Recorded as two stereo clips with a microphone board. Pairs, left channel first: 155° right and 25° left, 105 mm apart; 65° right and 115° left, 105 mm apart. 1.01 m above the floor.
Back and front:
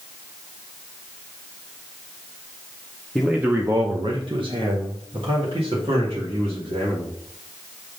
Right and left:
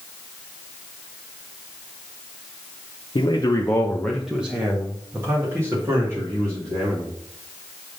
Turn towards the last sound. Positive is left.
turn(degrees=55)